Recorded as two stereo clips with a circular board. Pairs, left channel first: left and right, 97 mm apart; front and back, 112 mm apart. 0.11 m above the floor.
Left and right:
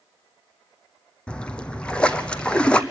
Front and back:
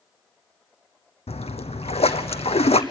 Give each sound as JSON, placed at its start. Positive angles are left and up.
{"t": 1.3, "sound": "a splash", "azimuth_deg": 10, "distance_m": 0.9}